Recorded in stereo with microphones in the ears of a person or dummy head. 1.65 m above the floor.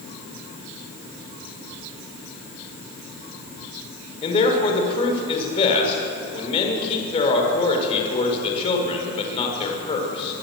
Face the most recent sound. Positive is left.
turn(degrees=35)  # may be behind; listen again after turning